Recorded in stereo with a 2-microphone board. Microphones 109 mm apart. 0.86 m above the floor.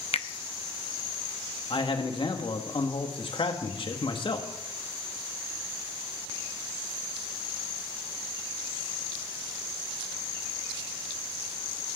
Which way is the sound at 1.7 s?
55° left (ahead or behind).